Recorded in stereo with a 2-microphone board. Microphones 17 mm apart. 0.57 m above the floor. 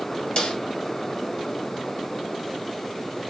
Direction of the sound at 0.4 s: 65° left (ahead or behind).